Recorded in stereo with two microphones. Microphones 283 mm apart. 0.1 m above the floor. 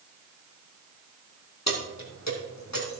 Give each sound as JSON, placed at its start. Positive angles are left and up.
{"t": 1.7, "sound": "keys jangling", "side_deg": 65, "distance_m": 2.5}